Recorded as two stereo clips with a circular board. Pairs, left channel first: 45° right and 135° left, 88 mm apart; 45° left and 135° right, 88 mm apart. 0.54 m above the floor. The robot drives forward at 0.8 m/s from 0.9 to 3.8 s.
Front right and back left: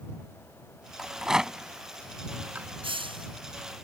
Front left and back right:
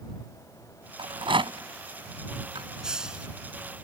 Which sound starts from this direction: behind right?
A rattle, at 1.0 s.